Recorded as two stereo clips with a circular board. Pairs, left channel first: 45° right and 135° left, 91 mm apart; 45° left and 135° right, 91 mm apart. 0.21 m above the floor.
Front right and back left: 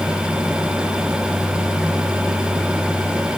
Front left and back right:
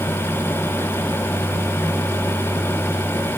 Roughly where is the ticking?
No ticking in this recording.